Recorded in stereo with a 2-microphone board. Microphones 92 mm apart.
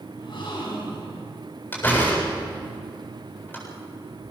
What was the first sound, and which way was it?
A gasp, 60° left (ahead or behind).